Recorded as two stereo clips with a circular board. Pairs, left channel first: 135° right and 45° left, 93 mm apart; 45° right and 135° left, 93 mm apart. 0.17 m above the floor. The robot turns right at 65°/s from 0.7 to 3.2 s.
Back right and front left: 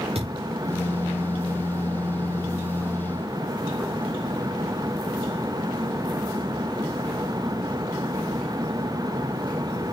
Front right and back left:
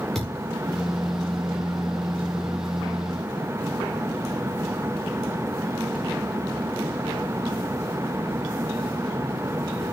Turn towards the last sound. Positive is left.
turn(degrees=-155)